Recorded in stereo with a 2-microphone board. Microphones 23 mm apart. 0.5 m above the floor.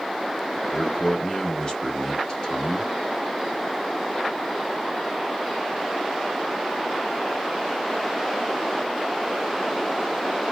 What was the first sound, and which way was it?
A man speaking, 35° left (ahead or behind).